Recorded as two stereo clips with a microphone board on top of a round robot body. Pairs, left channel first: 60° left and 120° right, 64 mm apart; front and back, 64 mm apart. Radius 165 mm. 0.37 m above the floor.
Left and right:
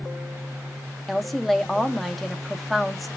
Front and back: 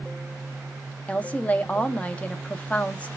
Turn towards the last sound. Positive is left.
turn(degrees=-30)